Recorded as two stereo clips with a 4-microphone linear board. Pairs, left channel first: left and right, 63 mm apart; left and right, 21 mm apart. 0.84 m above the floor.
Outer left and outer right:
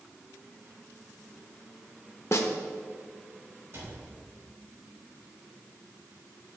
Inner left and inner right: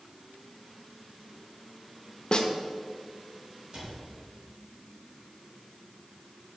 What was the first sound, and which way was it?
A snare drum, 50° left (ahead or behind).